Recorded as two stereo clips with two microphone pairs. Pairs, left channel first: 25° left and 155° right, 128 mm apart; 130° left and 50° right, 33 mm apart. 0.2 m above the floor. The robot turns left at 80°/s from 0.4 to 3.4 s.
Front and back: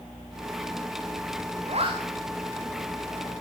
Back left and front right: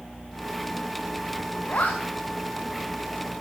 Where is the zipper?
175° left, 3 m; by 3.4 s 35° left, 3 m.